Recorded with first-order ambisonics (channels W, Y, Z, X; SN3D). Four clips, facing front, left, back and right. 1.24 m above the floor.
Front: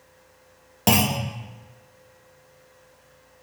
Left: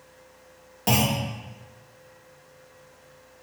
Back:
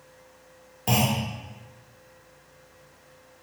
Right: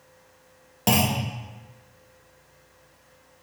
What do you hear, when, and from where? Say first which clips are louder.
0.9 s a clunk: right 1 dB, front 3 dB; 20° right, 0.9 m